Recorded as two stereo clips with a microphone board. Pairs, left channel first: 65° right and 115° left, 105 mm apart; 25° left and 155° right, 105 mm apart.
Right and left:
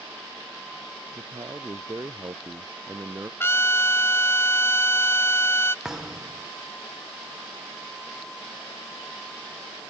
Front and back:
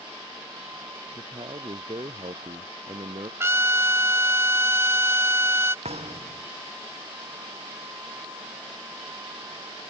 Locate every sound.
1.1 s a man speaking: 165° left; by 3.3 s 175° left
3.4 s a trumpet: 115° right
5.8 s a thud: 160° right